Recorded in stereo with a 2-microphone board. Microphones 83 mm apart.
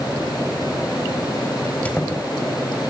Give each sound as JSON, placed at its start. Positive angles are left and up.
{"t": 1.6, "sound": "a squeak", "side_deg": 15, "distance_m": 4.0}